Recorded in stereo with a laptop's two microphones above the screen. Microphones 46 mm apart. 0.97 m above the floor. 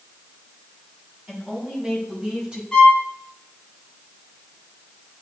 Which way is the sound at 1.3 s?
15° right (ahead or behind).